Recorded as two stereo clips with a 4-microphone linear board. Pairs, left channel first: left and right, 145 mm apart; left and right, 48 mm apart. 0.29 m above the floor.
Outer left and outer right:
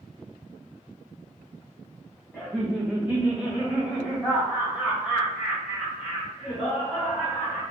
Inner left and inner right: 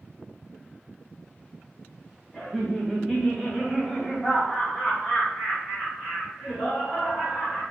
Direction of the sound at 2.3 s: 10° right (ahead or behind).